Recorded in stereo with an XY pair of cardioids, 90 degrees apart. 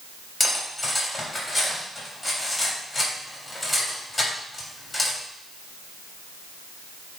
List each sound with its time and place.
0.4 s cutlery clinking: 20° left, 3.5 m